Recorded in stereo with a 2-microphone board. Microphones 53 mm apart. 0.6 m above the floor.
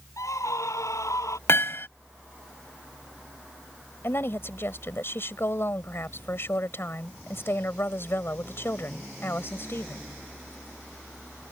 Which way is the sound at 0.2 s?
85° left.